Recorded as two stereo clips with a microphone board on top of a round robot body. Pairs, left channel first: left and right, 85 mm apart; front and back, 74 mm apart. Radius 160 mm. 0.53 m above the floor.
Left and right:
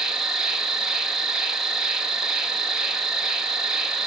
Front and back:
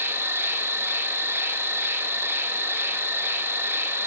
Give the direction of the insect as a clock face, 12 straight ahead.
6 o'clock.